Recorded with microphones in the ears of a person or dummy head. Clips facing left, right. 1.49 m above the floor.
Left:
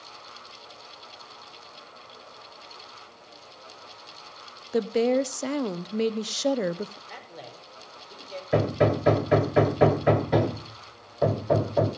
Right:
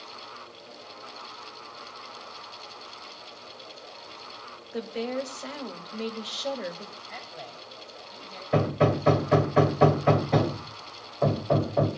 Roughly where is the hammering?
Centre.